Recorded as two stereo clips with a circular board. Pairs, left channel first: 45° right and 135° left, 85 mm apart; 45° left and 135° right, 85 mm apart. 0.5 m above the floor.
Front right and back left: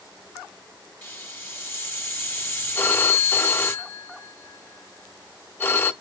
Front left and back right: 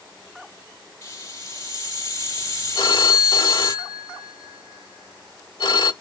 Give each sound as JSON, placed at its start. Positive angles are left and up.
{"t": 1.0, "sound": "a hiss", "azimuth_deg": 15, "distance_m": 1.4}
{"t": 2.8, "sound": "a phone ringing", "azimuth_deg": 20, "distance_m": 1.1}